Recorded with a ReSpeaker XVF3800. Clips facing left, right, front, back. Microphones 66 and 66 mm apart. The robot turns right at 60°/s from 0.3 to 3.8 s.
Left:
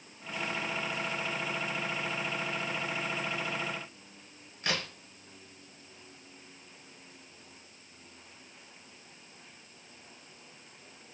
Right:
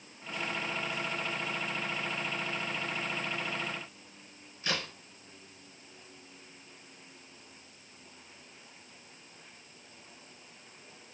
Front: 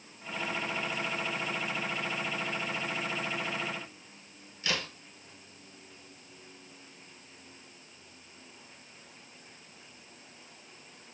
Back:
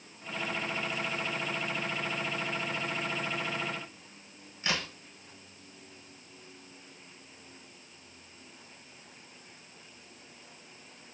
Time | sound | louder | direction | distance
4.6 | a crack | left 1 dB, back 1 dB | 115° left | 1.3 m